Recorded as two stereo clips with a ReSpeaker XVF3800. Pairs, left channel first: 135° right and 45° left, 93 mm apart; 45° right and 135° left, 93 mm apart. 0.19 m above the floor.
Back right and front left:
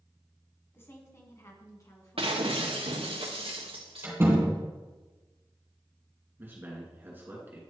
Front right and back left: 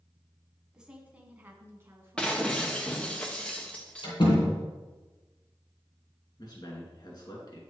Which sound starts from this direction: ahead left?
Breaking glass, at 2.2 s.